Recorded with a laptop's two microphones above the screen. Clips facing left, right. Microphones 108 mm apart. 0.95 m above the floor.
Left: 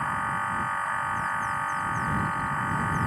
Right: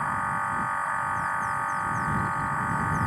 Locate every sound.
0.0 s a machine running: 5° right (ahead or behind)